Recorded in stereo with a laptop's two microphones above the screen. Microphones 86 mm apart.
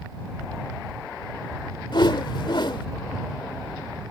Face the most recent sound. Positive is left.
turn(degrees=65)  # may be behind; listen again after turning